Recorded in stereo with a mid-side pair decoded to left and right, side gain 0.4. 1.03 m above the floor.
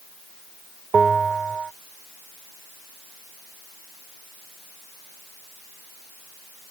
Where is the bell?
40° right.